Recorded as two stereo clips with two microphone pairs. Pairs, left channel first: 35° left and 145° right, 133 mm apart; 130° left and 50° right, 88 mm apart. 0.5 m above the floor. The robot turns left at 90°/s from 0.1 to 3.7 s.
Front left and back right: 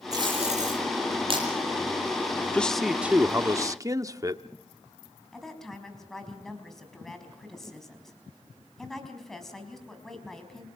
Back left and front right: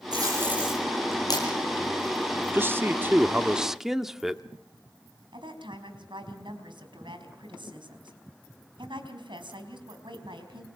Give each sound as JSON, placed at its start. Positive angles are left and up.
{"t": 0.1, "sound": "tape being pulled", "azimuth_deg": -85, "distance_m": 9.0}
{"t": 2.5, "sound": "a man speaking", "azimuth_deg": -25, "distance_m": 0.9}
{"t": 5.3, "sound": "a woman speaking", "azimuth_deg": -50, "distance_m": 4.5}